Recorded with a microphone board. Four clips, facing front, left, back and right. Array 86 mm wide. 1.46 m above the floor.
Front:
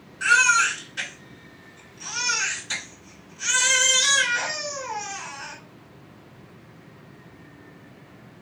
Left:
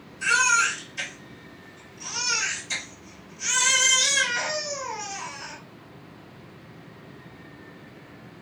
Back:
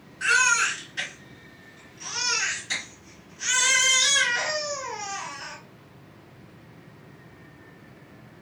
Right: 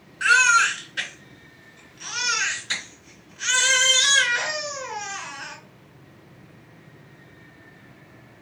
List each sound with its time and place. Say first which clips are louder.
0.2 s a baby crying: right 4 dB, front 3 dB; 85° right, 2.5 m